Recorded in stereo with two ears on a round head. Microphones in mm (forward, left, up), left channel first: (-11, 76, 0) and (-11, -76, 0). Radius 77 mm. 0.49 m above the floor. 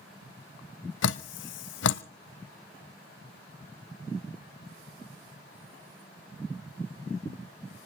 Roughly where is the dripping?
Left.